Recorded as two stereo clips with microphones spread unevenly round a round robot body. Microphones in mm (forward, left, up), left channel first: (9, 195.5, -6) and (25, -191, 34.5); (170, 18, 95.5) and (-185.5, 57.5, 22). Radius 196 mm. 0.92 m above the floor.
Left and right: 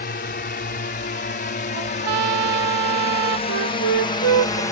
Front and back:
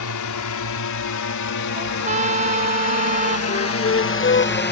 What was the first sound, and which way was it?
A drone, 30° left.